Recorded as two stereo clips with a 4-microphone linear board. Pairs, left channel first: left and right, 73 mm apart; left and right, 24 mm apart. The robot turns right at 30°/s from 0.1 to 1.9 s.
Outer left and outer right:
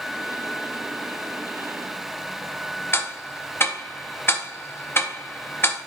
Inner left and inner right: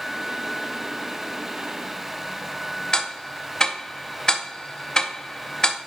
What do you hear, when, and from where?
2.9 s ticking: 30° left (ahead or behind), 0.7 m